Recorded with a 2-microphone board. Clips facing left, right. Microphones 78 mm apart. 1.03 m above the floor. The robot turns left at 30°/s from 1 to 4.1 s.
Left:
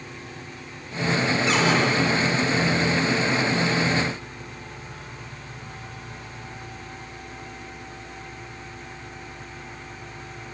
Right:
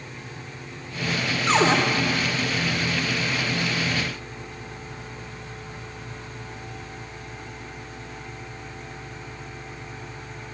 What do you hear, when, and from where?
1.5 s a cupboard door: 35° right (ahead or behind), 1.5 m; by 1.8 s 45° right (ahead or behind), 1.5 m